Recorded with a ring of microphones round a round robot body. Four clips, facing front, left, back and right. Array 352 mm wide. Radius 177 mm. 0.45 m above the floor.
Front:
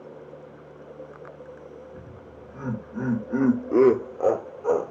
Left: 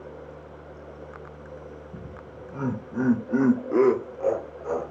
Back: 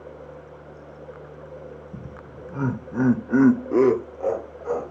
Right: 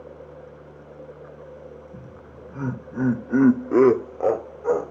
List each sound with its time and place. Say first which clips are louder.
1.9 s laughter: left 1 dB, back 3 dB; 165° left, 2 m; by 4.9 s 40° right, 1.8 m